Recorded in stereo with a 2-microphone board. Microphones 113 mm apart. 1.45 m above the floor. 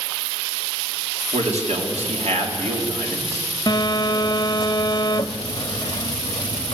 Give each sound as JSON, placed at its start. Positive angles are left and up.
{"t": 1.3, "sound": "a man speaking", "side_deg": -80, "distance_m": 3.5}
{"t": 3.7, "sound": "a phone buzzing", "side_deg": 35, "distance_m": 1.0}